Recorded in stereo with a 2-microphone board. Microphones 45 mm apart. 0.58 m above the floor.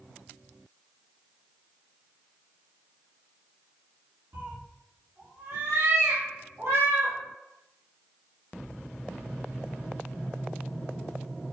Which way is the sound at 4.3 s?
40° right (ahead or behind).